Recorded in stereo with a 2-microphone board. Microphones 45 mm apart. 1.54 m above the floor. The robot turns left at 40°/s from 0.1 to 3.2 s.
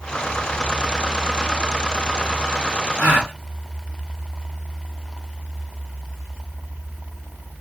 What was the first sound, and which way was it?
A gasp, 40° right (ahead or behind).